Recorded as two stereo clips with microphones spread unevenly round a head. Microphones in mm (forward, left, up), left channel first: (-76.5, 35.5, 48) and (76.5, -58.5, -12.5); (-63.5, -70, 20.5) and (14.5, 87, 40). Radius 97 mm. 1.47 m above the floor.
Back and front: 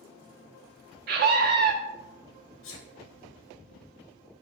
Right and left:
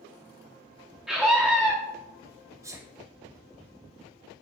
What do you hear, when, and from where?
1.1 s a scream: 25° right, 0.6 m
2.6 s a sneeze: 135° left, 1.1 m